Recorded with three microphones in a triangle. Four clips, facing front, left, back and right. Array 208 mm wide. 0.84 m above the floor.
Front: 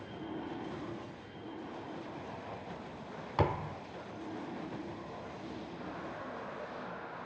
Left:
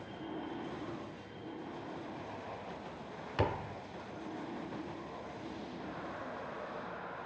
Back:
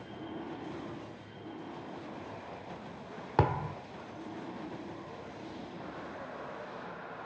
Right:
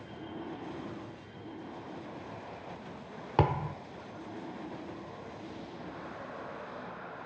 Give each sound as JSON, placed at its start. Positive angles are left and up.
{"t": 3.4, "sound": "a thud", "azimuth_deg": -135, "distance_m": 1.4}